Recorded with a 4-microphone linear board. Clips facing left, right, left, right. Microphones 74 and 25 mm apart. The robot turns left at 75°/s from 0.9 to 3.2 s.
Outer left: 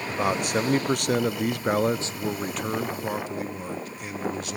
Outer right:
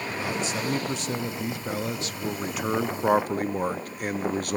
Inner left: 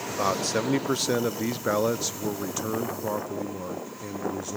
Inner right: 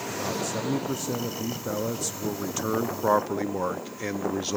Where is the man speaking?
120° left, 0.9 m; by 4.6 s 55° right, 0.9 m.